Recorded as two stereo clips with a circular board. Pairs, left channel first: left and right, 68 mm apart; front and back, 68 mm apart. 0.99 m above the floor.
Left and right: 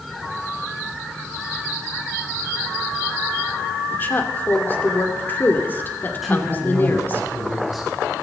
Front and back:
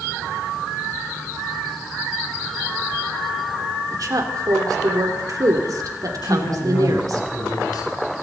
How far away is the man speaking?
About 6.5 m.